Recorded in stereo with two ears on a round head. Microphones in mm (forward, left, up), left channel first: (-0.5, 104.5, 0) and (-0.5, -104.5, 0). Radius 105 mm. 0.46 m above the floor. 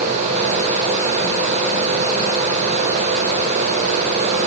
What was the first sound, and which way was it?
Only background noise.